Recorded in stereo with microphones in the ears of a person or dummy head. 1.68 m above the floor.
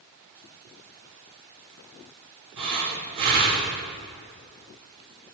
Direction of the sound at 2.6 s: 55° right (ahead or behind).